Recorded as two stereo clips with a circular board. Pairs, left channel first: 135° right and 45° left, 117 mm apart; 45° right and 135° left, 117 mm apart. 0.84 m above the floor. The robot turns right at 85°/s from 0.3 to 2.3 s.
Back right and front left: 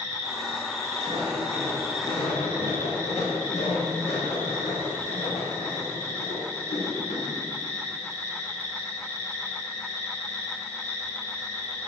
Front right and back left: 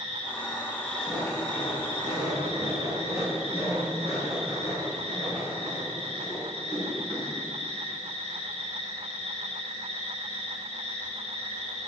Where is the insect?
20° right, 3.5 m; by 11.9 s 150° left, 3.5 m.